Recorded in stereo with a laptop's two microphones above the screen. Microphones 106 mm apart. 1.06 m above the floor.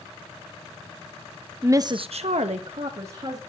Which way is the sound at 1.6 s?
20° right (ahead or behind).